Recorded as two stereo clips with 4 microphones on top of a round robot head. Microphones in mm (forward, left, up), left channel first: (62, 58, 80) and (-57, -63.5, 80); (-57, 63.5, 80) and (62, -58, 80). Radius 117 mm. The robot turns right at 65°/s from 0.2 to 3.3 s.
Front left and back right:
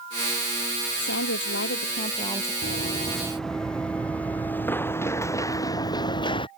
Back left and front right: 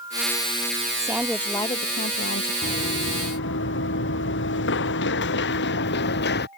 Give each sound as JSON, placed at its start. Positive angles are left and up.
{"t": 1.0, "sound": "a woman speaking", "azimuth_deg": 25}
{"t": 2.6, "sound": "running footsteps", "azimuth_deg": 90}